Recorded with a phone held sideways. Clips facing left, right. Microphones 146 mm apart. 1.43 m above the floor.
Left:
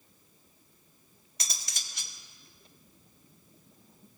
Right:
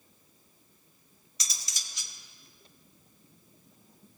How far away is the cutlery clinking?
About 1.6 m.